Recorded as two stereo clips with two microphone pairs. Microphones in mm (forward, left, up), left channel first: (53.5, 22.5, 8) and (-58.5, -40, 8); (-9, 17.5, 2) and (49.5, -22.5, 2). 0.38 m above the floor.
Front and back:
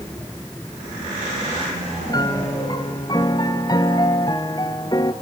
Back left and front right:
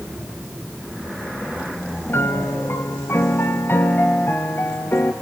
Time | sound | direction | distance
2.1 | a piano | 90° left | 1.2 m